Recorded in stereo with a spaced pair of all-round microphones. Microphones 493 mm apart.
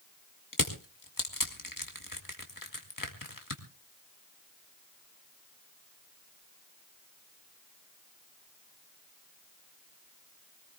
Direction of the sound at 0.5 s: 40° left (ahead or behind).